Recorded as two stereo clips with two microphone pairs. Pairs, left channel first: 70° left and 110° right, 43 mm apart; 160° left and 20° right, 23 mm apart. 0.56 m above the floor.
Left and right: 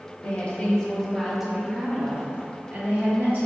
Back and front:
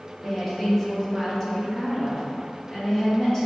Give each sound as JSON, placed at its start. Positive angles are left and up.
{"t": 0.2, "sound": "a woman speaking", "azimuth_deg": 80, "distance_m": 1.0}